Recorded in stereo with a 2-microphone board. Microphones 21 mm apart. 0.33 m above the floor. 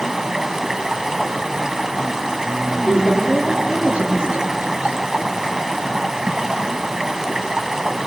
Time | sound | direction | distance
0.0 | running water | 25° right (ahead or behind) | 1.4 m
2.9 | a woman speaking | 60° right (ahead or behind) | 4.5 m